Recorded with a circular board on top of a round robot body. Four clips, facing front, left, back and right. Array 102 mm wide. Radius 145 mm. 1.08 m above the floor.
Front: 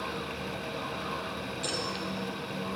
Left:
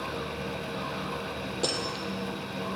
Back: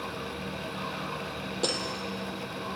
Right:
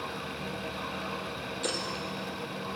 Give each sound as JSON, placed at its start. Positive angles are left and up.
{"t": 1.6, "sound": "breaking glass", "azimuth_deg": 140, "distance_m": 3.5}